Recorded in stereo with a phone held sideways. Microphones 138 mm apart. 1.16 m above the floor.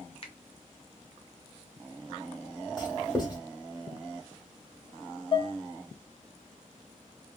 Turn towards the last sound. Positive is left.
turn(degrees=30)  # may be behind; listen again after turning